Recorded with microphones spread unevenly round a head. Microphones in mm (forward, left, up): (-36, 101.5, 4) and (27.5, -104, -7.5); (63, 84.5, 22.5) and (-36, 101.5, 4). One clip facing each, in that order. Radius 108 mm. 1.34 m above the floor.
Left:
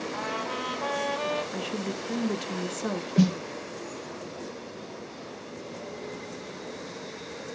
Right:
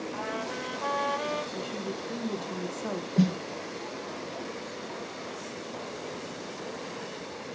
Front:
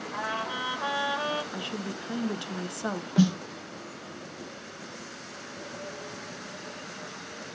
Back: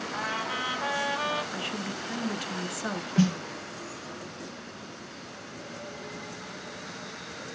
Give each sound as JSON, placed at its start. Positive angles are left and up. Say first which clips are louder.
{"t": 0.1, "sound": "a trumpet", "louder": "left 1 dB, front 1 dB", "azimuth_deg": 55, "distance_m": 7.0}
{"t": 1.5, "sound": "a woman speaking", "louder": "left 2 dB, back 1 dB", "azimuth_deg": 55, "distance_m": 1.3}
{"t": 3.2, "sound": "a snare drum", "louder": "left 2 dB, front 1 dB", "azimuth_deg": 40, "distance_m": 0.6}